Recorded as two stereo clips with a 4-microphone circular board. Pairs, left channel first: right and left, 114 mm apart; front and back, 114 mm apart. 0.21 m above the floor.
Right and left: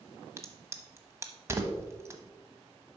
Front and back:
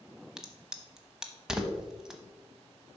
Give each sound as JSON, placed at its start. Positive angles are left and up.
{"t": 0.4, "sound": "a crack", "azimuth_deg": 100, "distance_m": 0.8}